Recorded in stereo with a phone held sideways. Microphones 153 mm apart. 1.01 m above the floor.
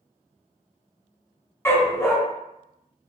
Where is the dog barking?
15° left (ahead or behind), 0.7 m.